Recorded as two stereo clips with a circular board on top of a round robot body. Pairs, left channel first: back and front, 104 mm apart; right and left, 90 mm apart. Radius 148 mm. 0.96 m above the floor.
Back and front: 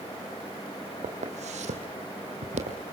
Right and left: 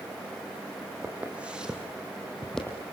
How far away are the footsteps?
About 3.5 m.